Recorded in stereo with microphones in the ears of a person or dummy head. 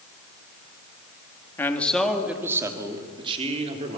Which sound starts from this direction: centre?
A man speaking, at 1.6 s.